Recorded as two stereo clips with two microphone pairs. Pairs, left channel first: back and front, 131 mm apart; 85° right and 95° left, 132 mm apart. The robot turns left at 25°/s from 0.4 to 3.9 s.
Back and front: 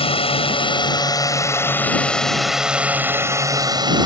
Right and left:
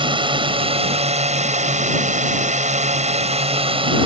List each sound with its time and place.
0.0 s a drone: 140° left; by 4.1 s 50° left